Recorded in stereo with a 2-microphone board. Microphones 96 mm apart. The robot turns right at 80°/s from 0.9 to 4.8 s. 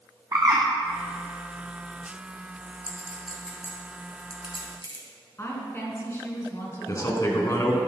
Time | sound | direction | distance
0.3 | a bird | 35° right (ahead or behind) | 2.5 m
2.9 | a clink | 35° right (ahead or behind) | 2.5 m
5.4 | a woman speaking | 30° left (ahead or behind) | 2 m
6.9 | a man speaking | 35° left (ahead or behind) | 1.7 m